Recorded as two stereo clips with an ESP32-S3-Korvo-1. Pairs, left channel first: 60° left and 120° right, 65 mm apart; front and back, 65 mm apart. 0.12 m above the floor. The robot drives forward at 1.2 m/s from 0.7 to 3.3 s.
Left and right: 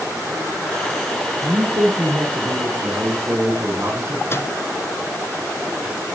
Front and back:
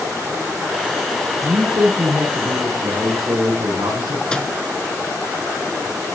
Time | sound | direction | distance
1.4 | a man speaking | 155° right | 2.5 m
4.3 | a microwave | 70° left | 1.0 m